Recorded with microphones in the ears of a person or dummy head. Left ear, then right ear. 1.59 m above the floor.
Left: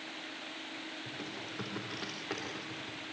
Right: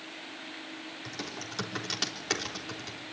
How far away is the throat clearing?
No throat clearing in this recording.